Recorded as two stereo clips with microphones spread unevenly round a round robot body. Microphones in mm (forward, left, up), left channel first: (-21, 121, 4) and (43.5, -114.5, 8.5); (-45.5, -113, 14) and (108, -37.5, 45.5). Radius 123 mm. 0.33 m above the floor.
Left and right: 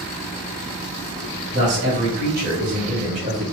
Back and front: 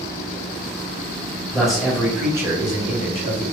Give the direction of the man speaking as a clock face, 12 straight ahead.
3 o'clock.